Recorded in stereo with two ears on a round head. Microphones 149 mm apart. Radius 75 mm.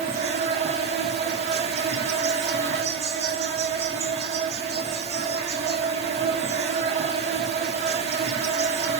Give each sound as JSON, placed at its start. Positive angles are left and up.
{"t": 0.0, "sound": "an insect", "side_deg": -40, "distance_m": 0.9}